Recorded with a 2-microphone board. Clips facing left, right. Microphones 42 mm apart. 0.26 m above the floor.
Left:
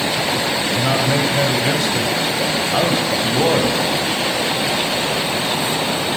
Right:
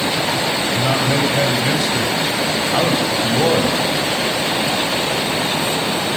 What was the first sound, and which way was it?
A man speaking, centre (ahead or behind).